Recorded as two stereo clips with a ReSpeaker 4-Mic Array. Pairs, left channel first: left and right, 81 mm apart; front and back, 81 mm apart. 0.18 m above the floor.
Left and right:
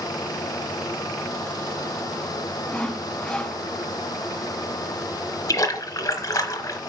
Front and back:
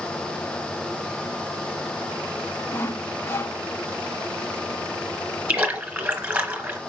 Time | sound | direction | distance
2.7 | sawing | 25° left | 0.7 m
5.5 | a splash | 110° left | 1.8 m